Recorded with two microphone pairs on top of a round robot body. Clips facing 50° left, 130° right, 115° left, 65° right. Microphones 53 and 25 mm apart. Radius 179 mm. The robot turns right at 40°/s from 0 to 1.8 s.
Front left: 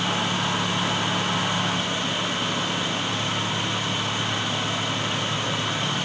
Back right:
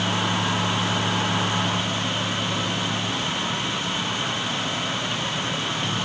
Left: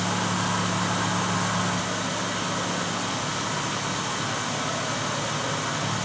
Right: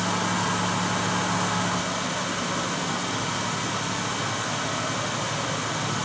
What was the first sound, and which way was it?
Only background noise.